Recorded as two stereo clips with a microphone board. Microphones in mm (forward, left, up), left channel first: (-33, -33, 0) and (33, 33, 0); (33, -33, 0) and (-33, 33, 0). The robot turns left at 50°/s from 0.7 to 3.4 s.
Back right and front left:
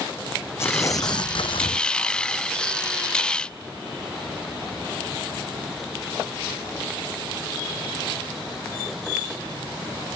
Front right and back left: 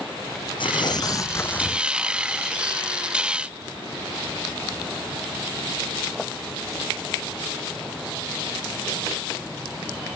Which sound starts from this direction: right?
Tearing paper, at 0.6 s.